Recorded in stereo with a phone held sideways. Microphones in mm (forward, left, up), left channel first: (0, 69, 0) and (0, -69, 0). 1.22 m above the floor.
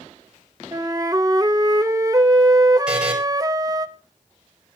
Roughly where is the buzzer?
Centre.